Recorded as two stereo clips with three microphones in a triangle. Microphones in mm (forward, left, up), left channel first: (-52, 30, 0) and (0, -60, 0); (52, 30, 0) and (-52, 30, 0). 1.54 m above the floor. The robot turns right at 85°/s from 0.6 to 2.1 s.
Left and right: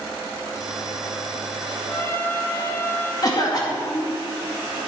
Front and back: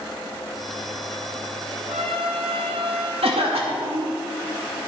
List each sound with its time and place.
1.9 s a trumpet: 165° left, 1.6 m; by 3.1 s 175° right, 1.6 m
3.2 s a cough: 170° left, 2 m